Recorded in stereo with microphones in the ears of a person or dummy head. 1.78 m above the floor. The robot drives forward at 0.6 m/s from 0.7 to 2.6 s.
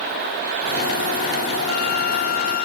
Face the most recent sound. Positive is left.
turn(degrees=55)  # may be behind; listen again after turning